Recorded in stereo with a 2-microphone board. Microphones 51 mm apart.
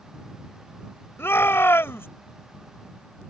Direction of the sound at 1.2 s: 50° left (ahead or behind).